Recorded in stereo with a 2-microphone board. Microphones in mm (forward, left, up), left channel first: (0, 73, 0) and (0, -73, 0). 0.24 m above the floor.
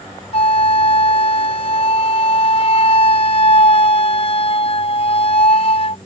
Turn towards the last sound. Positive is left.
turn(degrees=45)  # may be behind; listen again after turning